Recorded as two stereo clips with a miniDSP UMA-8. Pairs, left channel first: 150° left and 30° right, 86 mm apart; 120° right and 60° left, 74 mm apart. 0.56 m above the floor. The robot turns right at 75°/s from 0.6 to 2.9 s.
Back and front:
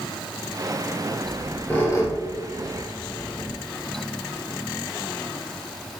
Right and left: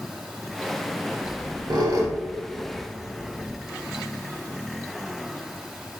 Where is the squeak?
45° left, 1.3 m; by 3.6 s 170° left, 1.3 m.